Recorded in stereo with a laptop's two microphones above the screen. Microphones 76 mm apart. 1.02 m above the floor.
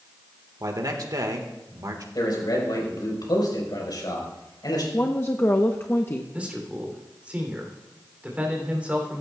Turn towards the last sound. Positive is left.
turn(degrees=-20)  # may be behind; listen again after turning